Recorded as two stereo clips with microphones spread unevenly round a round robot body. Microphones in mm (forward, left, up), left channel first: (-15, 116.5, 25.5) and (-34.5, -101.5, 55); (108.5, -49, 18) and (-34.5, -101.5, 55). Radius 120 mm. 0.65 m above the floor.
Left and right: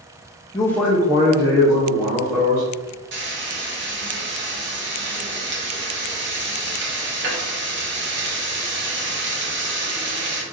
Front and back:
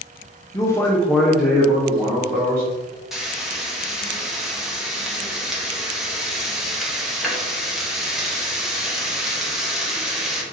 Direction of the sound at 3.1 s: 60° right.